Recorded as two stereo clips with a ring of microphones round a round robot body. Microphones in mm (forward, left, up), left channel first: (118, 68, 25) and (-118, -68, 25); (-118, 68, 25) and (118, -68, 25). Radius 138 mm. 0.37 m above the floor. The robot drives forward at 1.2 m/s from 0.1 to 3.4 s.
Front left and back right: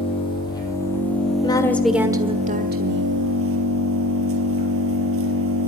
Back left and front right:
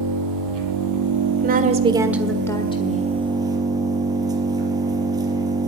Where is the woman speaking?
25° right, 1.6 m; by 3.1 s 165° right, 1.9 m.